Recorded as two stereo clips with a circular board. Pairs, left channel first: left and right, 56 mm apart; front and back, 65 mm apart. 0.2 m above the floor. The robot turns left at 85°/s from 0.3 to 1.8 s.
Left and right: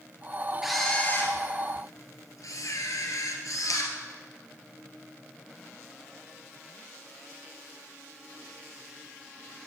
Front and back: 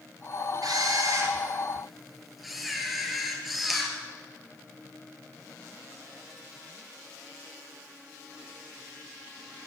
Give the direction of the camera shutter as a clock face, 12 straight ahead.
6 o'clock.